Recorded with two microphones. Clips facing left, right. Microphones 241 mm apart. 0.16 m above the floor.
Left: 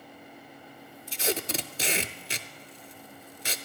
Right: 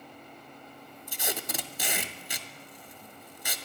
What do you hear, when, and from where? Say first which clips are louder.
1.1 s tape being pulled: left 6 dB; 25° left (ahead or behind), 0.6 m